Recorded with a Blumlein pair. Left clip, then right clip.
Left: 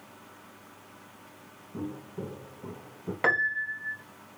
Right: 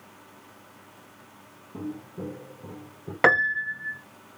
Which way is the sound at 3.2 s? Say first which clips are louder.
Right 5 dB; 25° right.